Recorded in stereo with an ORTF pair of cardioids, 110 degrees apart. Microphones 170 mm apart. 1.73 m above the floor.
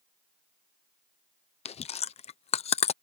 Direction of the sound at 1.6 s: 40° left.